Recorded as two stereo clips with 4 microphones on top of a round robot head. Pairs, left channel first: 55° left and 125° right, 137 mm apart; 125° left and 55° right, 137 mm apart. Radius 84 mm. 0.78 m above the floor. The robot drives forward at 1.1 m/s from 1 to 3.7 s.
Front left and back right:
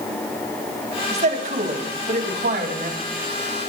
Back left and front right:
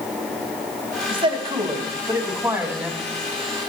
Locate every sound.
1.1 s a man speaking: 100° right, 2.5 m; by 3.0 s 135° right, 3.5 m